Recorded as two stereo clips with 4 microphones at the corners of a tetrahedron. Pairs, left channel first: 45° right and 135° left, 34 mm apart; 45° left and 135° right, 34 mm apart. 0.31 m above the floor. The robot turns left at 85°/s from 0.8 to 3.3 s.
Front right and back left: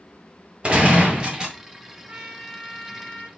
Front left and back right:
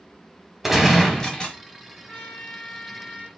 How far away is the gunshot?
About 1.5 m.